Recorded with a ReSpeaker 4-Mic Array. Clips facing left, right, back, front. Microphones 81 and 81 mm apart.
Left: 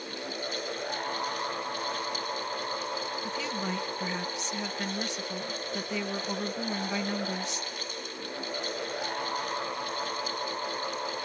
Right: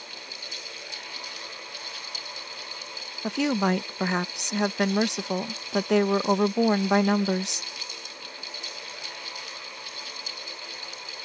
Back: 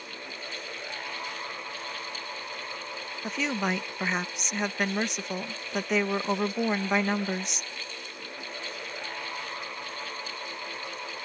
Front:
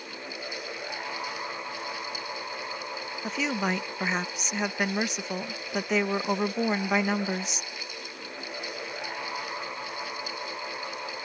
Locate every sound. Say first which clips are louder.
3.2 s a woman speaking: right 14 dB, even; 85° right